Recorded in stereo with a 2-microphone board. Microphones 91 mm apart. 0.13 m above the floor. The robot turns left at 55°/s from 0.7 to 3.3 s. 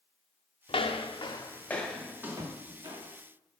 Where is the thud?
45° right (ahead or behind), 4.5 m; by 2.5 s 55° right (ahead or behind), 4.5 m.